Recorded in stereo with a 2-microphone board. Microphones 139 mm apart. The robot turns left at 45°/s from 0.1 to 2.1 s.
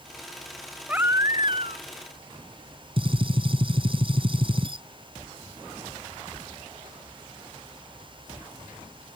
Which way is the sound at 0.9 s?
10° right.